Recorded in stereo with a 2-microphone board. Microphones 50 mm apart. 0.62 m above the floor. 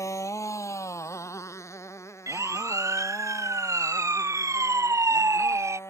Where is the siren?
80° right; by 5.8 s 70° right (ahead or behind).